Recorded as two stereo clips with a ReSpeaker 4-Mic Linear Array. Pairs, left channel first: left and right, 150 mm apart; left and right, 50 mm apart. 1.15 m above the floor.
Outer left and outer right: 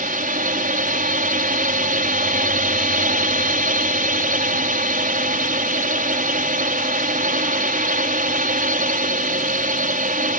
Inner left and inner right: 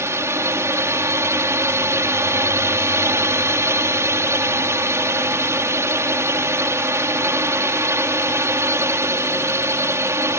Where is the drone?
70° right (ahead or behind).